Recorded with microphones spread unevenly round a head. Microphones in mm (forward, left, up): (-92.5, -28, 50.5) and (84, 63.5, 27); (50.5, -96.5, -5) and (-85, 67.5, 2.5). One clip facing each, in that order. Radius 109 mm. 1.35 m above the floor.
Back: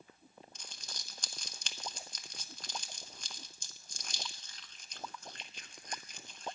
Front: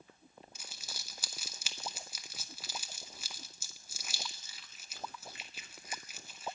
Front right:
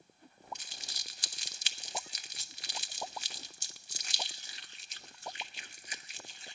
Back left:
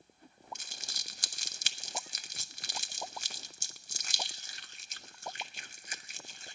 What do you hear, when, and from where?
0.6 s crumpling: 115° left, 0.6 m